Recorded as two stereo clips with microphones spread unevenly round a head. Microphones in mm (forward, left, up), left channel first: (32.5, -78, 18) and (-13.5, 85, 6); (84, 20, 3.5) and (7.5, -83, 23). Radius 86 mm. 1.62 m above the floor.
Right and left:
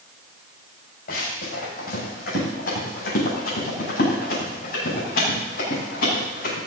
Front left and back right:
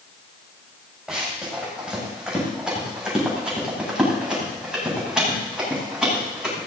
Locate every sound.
1.1 s running footsteps: 40° right, 9 m